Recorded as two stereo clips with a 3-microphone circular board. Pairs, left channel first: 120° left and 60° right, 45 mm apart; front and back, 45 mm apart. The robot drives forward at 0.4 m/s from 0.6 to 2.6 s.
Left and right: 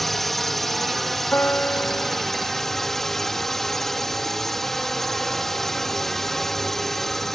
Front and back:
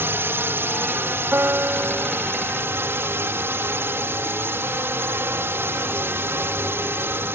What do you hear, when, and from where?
0.0 s a drone: 155° right; by 7.4 s 160° right
1.3 s a piano: 150° left; by 2.3 s 155° left